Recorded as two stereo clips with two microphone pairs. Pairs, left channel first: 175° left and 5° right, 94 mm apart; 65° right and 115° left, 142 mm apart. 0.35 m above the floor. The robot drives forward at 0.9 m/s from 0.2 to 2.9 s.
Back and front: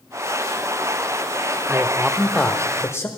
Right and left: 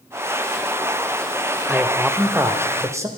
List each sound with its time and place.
1.7 s a man speaking: 25° left, 1.2 m; by 3.1 s 160° left, 1.3 m